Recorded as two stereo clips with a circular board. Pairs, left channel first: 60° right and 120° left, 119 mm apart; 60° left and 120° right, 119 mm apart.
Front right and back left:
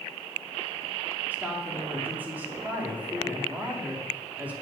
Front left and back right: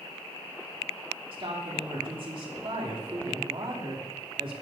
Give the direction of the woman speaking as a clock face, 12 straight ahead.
5 o'clock.